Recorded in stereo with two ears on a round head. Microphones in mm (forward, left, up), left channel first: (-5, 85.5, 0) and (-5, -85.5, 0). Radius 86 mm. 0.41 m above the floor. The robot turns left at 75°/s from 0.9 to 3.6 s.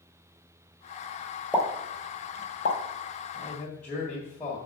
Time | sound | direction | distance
1.5 | a pop | 5° right (ahead or behind) | 1.4 m
3.3 | a man speaking | 25° left (ahead or behind) | 1.6 m